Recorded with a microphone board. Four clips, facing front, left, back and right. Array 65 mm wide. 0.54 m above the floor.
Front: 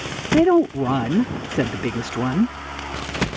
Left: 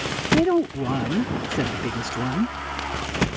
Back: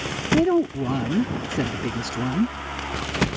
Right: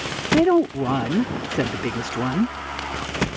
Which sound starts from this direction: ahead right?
A woman speaking, at 0.3 s.